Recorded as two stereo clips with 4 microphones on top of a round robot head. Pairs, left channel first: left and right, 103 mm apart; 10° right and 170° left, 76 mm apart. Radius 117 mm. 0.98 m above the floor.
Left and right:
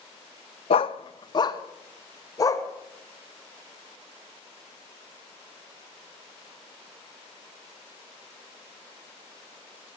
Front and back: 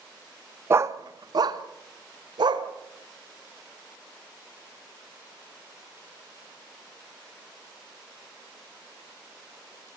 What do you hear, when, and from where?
0.7 s a dog barking: 115° left, 0.6 m; by 2.7 s 150° left, 2.5 m